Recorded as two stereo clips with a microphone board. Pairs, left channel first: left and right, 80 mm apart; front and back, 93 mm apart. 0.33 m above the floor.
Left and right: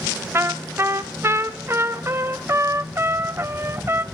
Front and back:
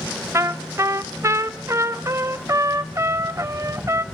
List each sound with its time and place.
0.3 s a trumpet: 135° right, 0.6 m